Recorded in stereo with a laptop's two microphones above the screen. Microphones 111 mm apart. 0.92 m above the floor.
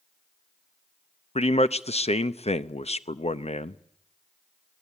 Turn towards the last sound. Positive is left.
turn(degrees=60)  # may be behind; listen again after turning